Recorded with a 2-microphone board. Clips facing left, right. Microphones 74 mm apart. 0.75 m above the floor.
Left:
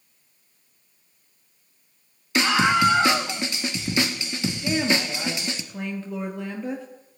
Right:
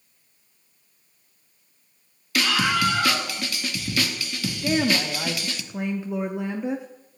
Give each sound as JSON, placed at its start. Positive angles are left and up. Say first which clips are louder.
{"t": 2.4, "sound": "a scream", "louder": "left 3 dB", "side_deg": 25, "distance_m": 0.7}
{"t": 4.6, "sound": "a woman speaking", "louder": "right 2 dB", "side_deg": -15, "distance_m": 0.9}